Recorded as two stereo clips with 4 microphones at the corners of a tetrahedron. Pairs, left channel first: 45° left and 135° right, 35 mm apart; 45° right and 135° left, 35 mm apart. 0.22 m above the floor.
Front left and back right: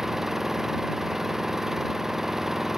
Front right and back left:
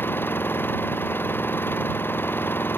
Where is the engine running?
55° right.